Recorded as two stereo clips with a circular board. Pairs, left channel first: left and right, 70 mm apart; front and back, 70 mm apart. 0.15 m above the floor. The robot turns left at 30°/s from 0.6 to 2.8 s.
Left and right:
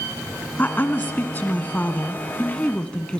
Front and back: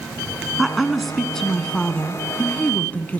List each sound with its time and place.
0.6 s a woman speaking: 100° left, 1.4 m; by 3.2 s 35° left, 1.4 m